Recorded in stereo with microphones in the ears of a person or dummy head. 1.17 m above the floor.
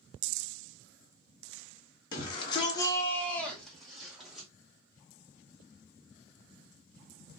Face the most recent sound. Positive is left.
turn(degrees=0)  # may be behind; listen again after turning